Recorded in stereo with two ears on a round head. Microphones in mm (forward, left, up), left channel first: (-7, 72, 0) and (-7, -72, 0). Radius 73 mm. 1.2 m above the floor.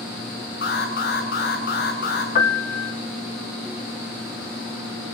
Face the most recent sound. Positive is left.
turn(degrees=45)  # may be behind; listen again after turning